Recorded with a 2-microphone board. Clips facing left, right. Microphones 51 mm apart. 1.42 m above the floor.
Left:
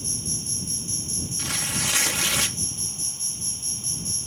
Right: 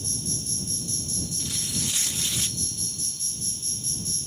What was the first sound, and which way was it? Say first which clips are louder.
An insect: even; 35° left (ahead or behind).